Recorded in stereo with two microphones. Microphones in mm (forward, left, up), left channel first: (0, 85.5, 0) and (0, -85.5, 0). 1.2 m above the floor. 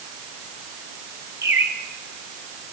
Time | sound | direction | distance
1.4 | a bird | 15° right (ahead or behind) | 2.5 m